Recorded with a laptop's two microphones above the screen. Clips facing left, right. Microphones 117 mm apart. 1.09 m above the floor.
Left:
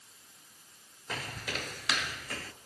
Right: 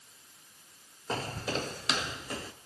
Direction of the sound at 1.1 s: 30° right (ahead or behind).